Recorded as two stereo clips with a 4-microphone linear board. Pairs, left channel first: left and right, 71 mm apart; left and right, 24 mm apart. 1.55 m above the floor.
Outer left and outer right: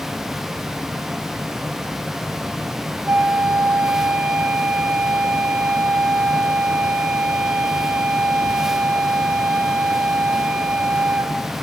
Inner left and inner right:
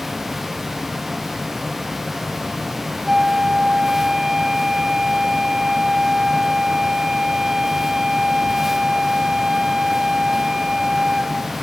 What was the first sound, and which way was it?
A flute, 15° right (ahead or behind).